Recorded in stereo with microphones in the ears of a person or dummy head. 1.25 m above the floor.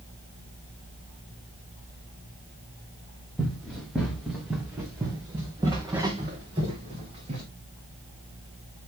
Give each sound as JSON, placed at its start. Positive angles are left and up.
{"t": 3.4, "sound": "running footsteps", "side_deg": 5, "distance_m": 3.5}